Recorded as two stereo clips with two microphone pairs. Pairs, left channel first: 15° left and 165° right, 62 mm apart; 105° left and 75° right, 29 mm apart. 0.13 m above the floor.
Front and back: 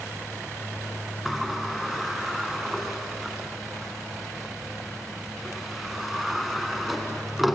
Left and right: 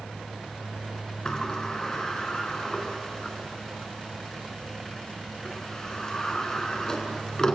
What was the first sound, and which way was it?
A sliding door, 115° left.